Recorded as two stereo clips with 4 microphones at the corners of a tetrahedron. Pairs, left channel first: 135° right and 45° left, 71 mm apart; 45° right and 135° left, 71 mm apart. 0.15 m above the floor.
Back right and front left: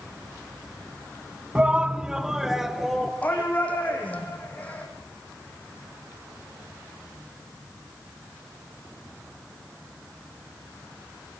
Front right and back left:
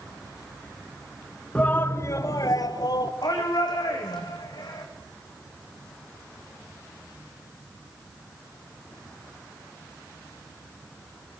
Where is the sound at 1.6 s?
Straight ahead, 1.1 m; by 3.1 s 45° right, 2.5 m.